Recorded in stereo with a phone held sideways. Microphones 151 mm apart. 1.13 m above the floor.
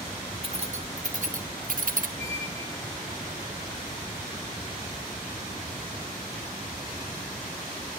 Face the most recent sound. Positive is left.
turn(degrees=-50)  # may be behind; listen again after turning